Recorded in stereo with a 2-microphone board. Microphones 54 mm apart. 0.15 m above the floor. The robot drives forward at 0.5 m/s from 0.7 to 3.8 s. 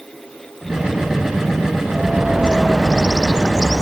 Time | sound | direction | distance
1.9 | a bird | 15° right (ahead or behind) | ?